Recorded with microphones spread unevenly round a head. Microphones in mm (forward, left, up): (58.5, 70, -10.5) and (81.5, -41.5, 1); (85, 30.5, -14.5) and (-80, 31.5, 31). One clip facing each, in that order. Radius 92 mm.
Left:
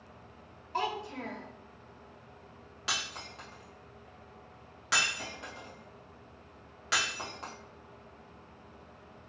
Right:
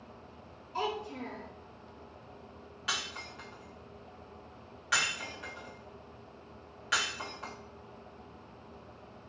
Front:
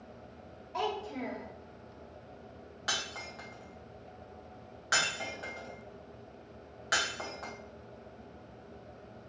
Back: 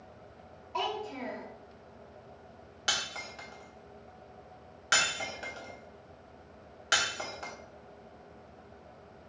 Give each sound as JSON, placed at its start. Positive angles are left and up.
{"t": 0.7, "sound": "a child speaking", "azimuth_deg": 90, "distance_m": 1.2}
{"t": 2.9, "sound": "breaking glass", "azimuth_deg": 165, "distance_m": 1.1}